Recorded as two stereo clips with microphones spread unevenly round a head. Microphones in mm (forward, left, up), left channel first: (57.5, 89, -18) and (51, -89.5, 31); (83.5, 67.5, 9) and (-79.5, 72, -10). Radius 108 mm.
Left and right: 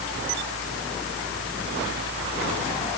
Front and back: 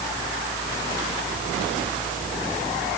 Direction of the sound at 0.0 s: 80° right.